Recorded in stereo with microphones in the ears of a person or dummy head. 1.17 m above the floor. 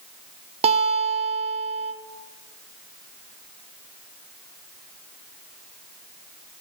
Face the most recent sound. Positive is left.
turn(degrees=-30)  # may be behind; listen again after turning